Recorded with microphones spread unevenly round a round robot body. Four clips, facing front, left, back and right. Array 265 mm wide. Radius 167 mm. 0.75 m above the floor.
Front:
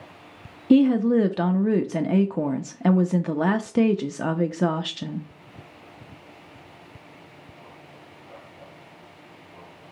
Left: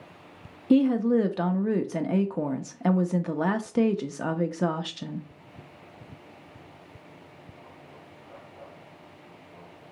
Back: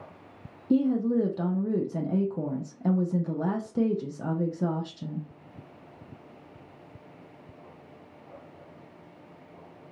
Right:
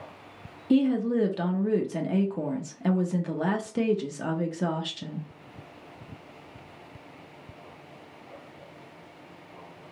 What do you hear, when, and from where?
0.7 s a woman speaking: 5° left, 0.5 m